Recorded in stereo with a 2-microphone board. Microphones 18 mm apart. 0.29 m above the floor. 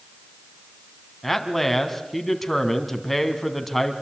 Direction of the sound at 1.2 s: 5° left (ahead or behind).